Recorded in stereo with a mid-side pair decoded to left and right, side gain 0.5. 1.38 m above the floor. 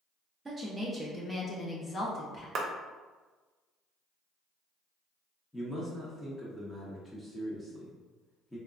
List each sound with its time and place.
0.5 s a woman speaking: 25° right, 0.8 m; by 2.5 s 45° left, 1.1 m
2.5 s a clap: 45° right, 0.7 m
5.5 s a man speaking: 10° left, 1.0 m